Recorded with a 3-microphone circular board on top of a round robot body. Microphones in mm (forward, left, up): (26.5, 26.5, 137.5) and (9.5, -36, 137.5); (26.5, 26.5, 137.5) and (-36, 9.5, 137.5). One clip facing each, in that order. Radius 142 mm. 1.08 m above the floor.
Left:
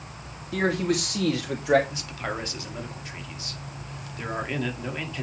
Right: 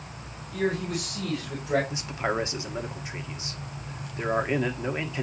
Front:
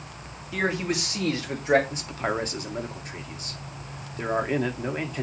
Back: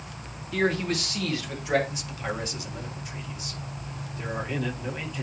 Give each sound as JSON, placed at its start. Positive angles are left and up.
{"t": 0.5, "sound": "a man speaking", "azimuth_deg": 100, "distance_m": 2.0}
{"t": 1.9, "sound": "a man speaking", "azimuth_deg": -35, "distance_m": 2.0}